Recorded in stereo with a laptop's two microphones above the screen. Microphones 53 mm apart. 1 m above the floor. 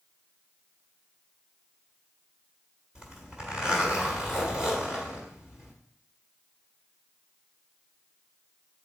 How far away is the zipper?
About 1.7 m.